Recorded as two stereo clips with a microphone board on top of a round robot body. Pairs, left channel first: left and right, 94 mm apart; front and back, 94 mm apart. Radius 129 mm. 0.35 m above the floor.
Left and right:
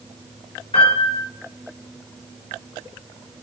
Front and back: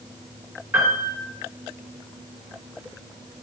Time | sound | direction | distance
0.7 | a piano | 110° left | 4.5 m